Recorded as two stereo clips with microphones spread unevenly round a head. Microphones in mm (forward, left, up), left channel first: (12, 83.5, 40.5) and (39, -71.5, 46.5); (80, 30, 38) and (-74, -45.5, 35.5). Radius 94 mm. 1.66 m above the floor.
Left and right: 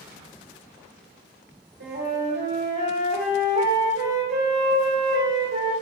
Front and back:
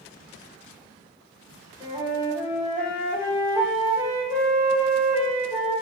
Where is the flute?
85° right, 1.2 m.